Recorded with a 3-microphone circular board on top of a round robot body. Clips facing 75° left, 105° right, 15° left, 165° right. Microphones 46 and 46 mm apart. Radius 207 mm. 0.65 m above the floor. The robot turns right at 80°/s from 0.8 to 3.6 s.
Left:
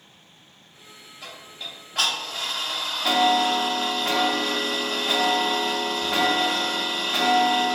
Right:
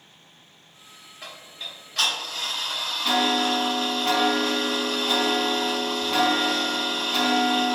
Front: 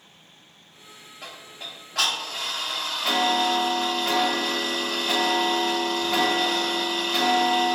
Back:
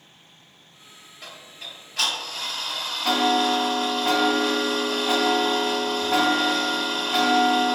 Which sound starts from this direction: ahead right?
Ticking, at 1.2 s.